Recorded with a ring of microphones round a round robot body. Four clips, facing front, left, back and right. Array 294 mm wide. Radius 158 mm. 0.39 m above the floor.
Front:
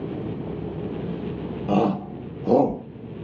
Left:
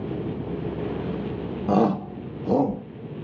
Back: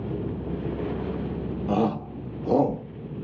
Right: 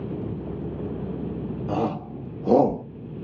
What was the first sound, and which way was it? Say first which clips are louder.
A shout: left 6 dB, front 3 dB; 65° left.